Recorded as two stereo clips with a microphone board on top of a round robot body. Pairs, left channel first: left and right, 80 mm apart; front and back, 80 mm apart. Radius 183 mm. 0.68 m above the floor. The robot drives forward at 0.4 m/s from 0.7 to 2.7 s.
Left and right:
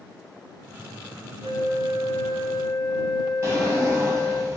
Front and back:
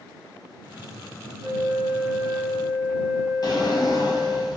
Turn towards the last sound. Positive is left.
turn(degrees=-35)